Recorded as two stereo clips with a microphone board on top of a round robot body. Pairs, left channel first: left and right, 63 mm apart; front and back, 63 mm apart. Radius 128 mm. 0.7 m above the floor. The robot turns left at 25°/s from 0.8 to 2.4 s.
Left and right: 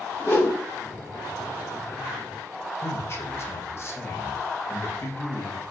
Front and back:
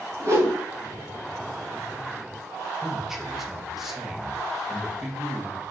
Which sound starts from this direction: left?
A man speaking, at 2.8 s.